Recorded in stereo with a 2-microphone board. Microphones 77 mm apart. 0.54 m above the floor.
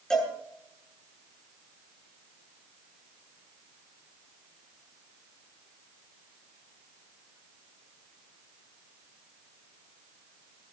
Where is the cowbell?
10° left (ahead or behind), 8 m.